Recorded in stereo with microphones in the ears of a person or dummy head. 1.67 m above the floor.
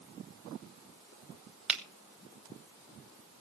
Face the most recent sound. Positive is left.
turn(degrees=-5)  # may be behind; listen again after turning